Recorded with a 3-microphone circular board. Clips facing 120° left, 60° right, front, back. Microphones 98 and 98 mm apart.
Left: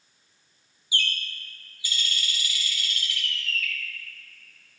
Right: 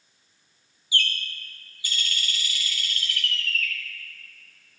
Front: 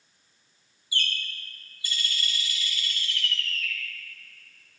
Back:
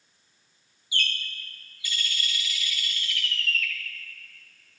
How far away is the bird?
About 1.0 m.